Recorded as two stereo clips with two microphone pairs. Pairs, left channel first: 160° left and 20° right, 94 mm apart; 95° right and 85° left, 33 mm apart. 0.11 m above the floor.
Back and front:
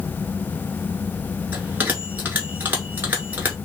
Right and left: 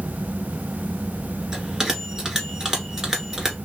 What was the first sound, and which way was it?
A bell, 30° left.